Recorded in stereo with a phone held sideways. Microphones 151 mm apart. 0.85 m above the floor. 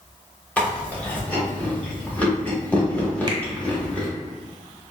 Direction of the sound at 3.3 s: 30° right (ahead or behind).